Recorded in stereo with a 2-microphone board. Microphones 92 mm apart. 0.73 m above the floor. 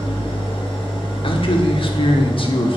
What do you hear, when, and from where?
0.0 s an engine running: 85° left, 3.5 m
1.2 s a man speaking: 70° left (ahead or behind), 1.6 m